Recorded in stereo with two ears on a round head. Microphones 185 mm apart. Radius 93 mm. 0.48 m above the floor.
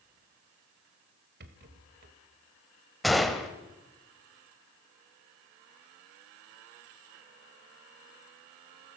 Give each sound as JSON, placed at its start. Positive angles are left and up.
{"t": 1.4, "sound": "a rattle", "side_deg": -50, "distance_m": 2.5}
{"t": 3.0, "sound": "a gunshot", "side_deg": 0, "distance_m": 1.8}